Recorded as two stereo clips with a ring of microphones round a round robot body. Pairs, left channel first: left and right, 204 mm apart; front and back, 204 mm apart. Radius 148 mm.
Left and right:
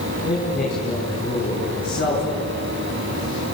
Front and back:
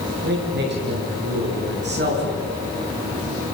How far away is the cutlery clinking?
No cutlery clinking in this recording.